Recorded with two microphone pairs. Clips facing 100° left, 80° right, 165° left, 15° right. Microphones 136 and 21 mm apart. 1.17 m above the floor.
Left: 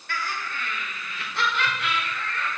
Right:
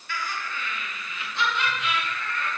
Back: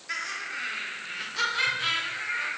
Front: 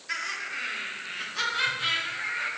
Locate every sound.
0.1 s laughter: 70° left, 2.5 m; by 2.5 s 95° left, 5.5 m